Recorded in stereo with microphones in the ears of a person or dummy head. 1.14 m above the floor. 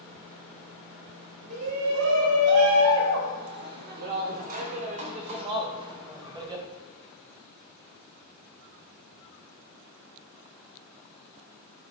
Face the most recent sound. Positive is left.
turn(degrees=-15)  # may be behind; listen again after turning